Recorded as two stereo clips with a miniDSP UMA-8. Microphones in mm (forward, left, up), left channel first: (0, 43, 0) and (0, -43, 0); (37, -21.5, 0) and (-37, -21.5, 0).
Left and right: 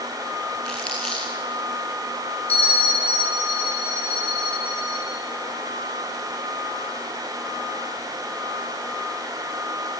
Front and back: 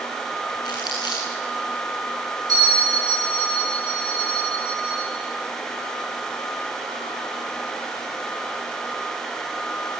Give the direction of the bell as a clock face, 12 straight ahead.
7 o'clock.